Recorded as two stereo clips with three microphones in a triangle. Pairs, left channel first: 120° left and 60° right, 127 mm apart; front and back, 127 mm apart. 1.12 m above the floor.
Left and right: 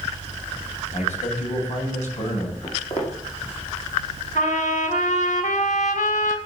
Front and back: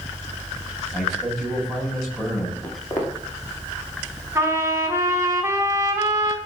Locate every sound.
0.9 s a man speaking: 90° left, 7 m
2.6 s footsteps: 70° left, 7 m
4.3 s a trumpet: 110° left, 5.5 m